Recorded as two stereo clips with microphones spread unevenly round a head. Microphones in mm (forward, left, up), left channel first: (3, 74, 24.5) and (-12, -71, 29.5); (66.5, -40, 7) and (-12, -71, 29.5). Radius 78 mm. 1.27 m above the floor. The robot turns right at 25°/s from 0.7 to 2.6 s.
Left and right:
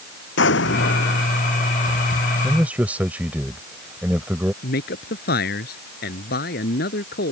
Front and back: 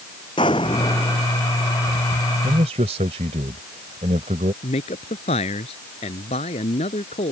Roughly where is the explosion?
Left.